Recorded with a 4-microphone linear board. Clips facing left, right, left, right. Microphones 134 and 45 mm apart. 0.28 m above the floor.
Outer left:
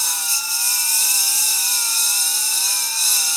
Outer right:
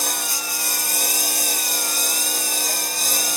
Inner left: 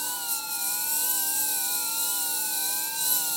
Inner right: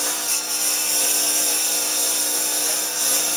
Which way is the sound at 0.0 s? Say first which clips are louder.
Outer right 4 dB, inner right 7 dB; 60° right (ahead or behind).